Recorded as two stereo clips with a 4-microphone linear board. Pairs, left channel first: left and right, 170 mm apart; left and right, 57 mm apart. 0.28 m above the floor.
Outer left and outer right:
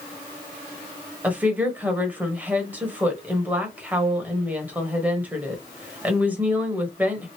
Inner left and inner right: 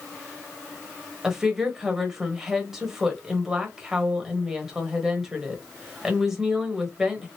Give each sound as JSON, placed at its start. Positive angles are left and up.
{"t": 1.2, "sound": "a woman speaking", "side_deg": -10, "distance_m": 1.1}